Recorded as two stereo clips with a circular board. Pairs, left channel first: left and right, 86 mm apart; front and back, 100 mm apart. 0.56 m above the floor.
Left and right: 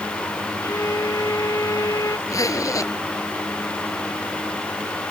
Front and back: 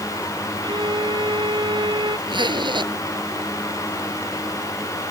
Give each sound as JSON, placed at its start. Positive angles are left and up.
{"t": 0.6, "sound": "a violin", "azimuth_deg": 140}
{"t": 2.3, "sound": "a zipper", "azimuth_deg": 140}